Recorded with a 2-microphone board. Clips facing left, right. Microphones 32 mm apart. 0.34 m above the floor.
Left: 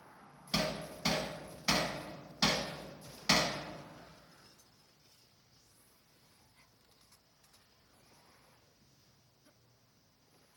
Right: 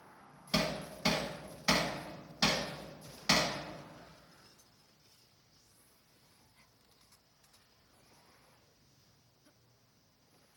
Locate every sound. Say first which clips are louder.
0.5 s hammering: right 1 dB; 15° right (ahead or behind), 0.8 m